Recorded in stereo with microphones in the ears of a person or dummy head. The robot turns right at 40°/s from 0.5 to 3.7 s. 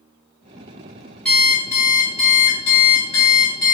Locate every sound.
1.2 s an alarm clock: 5° left, 1.3 m; by 3.8 s 105° left, 1.3 m